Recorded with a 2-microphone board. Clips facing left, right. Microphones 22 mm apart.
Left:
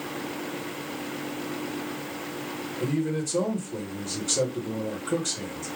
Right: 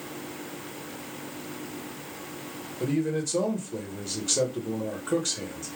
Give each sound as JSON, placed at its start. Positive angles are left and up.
{"t": 2.8, "sound": "a man speaking", "side_deg": -20, "distance_m": 1.1}